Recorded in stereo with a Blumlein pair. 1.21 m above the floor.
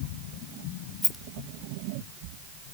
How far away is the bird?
No bird in this recording.